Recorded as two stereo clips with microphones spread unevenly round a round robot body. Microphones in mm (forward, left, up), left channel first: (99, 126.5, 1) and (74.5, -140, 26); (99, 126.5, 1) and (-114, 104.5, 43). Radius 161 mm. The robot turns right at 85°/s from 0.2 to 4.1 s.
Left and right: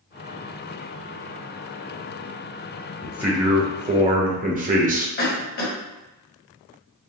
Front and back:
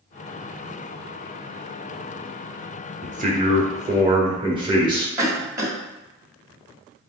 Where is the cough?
105° left, 1.8 m.